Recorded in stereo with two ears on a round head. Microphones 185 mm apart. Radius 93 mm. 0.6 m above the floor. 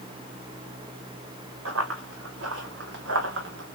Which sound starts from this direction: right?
Running footsteps, at 1.6 s.